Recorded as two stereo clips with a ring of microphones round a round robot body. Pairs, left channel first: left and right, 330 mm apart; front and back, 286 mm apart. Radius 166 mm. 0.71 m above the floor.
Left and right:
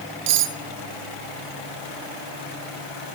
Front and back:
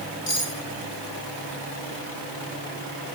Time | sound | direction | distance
0.3 | cutlery clinking | 80° right | 1.5 m